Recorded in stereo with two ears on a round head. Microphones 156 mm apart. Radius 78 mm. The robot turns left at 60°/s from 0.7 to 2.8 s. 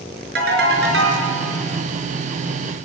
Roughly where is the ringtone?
Ahead right.